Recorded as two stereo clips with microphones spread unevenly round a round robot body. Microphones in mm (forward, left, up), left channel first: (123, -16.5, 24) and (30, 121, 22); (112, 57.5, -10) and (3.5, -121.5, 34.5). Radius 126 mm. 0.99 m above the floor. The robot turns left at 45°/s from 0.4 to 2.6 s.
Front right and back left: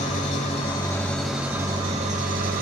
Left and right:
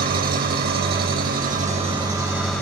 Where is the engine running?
105° right, 1.1 m; by 2.6 s 155° left, 1.1 m.